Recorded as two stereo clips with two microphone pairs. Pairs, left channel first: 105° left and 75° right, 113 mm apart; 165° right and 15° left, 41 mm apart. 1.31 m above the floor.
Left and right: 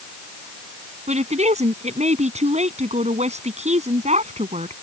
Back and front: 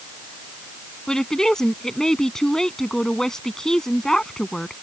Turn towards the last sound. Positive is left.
turn(degrees=-90)